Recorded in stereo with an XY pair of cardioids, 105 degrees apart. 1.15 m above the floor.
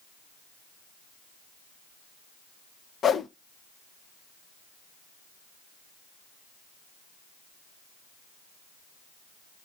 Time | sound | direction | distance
3.0 | a whoosh | 45° left | 0.8 m